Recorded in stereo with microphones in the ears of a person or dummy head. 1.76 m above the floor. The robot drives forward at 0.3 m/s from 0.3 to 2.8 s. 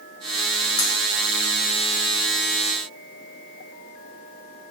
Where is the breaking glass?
60° left (ahead or behind), 3 m.